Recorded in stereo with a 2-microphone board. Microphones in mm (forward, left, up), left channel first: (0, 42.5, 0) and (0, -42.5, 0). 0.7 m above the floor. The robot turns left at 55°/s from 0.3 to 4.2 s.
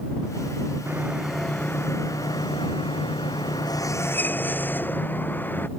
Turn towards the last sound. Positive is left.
turn(degrees=20)